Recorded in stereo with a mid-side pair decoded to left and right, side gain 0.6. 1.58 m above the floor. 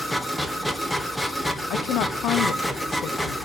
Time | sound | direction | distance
0.0 | a machine running | 5° left | 1.7 m
1.7 | a woman speaking | 60° left | 1.0 m